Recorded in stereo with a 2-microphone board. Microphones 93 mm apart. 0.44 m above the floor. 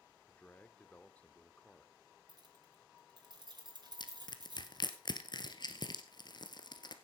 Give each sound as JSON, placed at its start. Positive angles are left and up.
{"t": 0.3, "sound": "a man speaking", "side_deg": 15, "distance_m": 1.0}
{"t": 2.3, "sound": "keys jangling", "side_deg": -50, "distance_m": 3.0}
{"t": 4.0, "sound": "crushing", "side_deg": 55, "distance_m": 1.5}